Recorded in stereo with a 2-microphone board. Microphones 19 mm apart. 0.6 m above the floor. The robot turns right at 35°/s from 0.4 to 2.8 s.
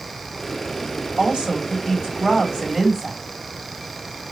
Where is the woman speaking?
70° right, 2 m; by 3.2 s 15° right, 2 m.